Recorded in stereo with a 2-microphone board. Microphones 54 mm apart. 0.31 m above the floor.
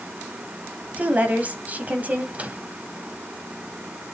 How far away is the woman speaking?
About 1.6 m.